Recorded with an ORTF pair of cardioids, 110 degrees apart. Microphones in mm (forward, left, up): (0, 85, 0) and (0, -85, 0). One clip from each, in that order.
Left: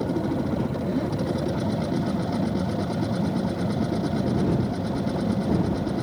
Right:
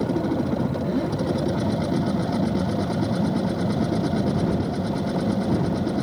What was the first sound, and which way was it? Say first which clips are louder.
A machine running: right 2 dB; 15° right.